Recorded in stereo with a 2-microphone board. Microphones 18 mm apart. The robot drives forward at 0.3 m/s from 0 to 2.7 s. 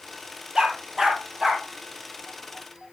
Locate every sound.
0.6 s a dog barking: 30° right (ahead or behind), 2.5 m; by 1.6 s 25° right (ahead or behind), 3 m